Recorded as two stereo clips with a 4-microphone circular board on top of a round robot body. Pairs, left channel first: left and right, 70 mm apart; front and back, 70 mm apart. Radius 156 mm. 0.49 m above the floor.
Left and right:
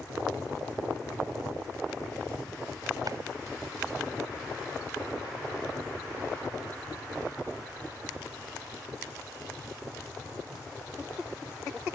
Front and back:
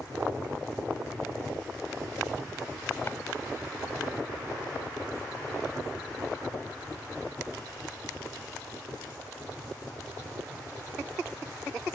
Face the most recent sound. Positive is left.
turn(degrees=-60)